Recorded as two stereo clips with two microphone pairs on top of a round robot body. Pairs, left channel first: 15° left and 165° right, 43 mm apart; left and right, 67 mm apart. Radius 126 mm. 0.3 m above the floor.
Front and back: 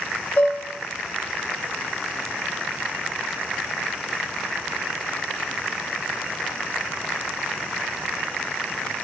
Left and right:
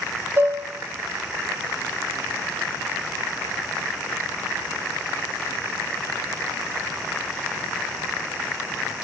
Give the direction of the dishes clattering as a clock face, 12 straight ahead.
1 o'clock.